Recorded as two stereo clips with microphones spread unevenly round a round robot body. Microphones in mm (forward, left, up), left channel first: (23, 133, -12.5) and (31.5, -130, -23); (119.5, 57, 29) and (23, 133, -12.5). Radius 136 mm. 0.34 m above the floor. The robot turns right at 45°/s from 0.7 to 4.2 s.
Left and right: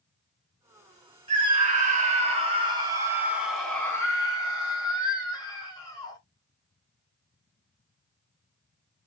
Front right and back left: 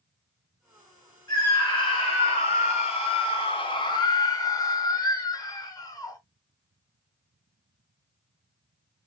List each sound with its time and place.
1.3 s a scream: 105° right, 1.0 m; by 6.2 s 25° left, 1.0 m